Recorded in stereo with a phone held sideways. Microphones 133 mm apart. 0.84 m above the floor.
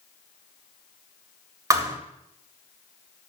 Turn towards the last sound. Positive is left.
turn(degrees=-25)  # may be behind; listen again after turning